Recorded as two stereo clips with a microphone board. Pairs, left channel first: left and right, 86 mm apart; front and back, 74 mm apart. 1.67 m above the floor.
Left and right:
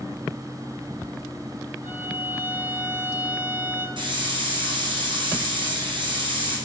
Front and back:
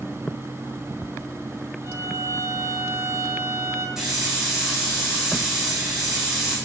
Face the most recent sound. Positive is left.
turn(degrees=-95)